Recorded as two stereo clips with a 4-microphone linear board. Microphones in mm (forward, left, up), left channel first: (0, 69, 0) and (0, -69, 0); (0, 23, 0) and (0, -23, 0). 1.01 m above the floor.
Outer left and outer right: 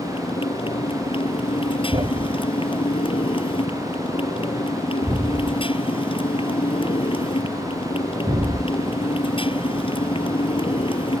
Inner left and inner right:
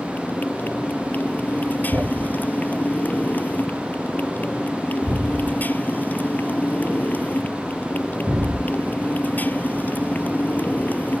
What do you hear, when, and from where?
0.0 s a motorcycle: 40° left (ahead or behind)
1.9 s a thud: 45° right (ahead or behind)